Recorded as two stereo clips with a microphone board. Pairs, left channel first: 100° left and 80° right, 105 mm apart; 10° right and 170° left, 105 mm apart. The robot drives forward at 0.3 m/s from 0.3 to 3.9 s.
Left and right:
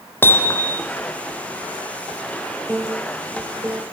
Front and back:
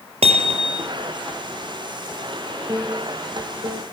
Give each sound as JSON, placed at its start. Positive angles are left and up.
{"t": 0.2, "sound": "hammering", "azimuth_deg": 170, "distance_m": 2.0}
{"t": 2.7, "sound": "a piano", "azimuth_deg": -145, "distance_m": 2.5}